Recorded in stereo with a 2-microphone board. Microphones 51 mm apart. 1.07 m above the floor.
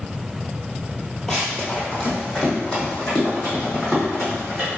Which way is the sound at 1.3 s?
10° left (ahead or behind).